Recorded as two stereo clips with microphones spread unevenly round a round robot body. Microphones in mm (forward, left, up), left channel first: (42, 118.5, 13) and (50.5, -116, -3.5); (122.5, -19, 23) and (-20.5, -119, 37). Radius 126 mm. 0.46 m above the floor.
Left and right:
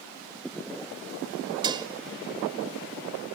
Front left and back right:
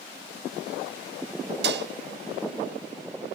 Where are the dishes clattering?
155° right, 0.9 m.